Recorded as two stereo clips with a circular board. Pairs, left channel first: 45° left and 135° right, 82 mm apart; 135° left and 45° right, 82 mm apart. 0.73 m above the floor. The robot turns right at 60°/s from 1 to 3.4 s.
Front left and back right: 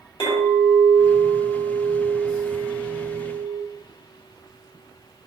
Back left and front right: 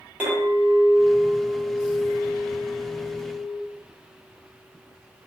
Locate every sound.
0.2 s a clink: 30° left, 2 m; by 3.6 s 170° left, 2 m